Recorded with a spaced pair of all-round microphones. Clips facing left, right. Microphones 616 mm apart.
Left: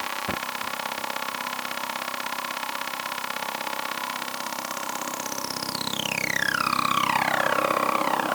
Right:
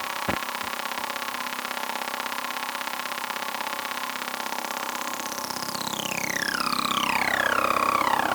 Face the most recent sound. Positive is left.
No sound to turn to.